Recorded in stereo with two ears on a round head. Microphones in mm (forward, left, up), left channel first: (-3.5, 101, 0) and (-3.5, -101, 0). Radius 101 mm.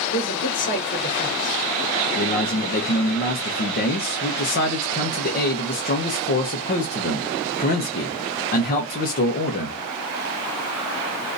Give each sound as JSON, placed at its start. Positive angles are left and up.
{"t": 0.1, "sound": "a man speaking", "side_deg": 50, "distance_m": 1.6}
{"t": 2.1, "sound": "a man speaking", "side_deg": 40, "distance_m": 0.8}